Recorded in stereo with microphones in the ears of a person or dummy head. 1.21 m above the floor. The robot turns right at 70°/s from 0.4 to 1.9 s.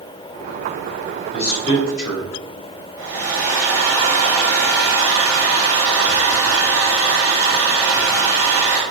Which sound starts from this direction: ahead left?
A man speaking, at 1.3 s.